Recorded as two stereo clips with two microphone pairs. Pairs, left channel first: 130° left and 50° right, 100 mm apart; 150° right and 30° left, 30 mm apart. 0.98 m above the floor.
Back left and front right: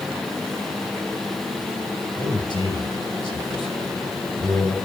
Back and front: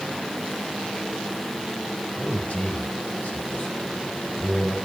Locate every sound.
2.2 s a man speaking: 160° left, 4 m